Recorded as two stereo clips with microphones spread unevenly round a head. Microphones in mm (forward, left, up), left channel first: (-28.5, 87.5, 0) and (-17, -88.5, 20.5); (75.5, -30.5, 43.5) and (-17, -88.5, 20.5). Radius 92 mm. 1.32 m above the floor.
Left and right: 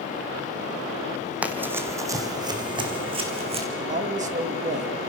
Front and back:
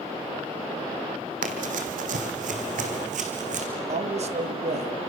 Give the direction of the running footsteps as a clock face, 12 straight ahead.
5 o'clock.